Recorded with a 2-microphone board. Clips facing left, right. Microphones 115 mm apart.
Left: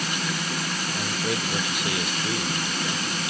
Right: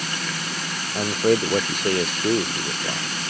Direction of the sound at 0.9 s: 45° right (ahead or behind).